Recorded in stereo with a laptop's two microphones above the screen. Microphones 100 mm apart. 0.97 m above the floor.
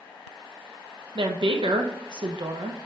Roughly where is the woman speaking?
Right.